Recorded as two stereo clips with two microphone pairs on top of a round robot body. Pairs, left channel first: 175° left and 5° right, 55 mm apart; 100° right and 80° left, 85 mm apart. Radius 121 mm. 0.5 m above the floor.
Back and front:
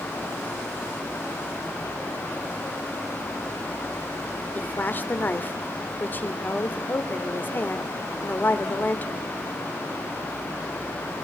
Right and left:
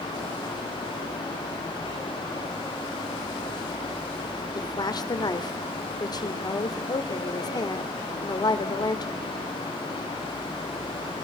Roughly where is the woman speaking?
Behind right.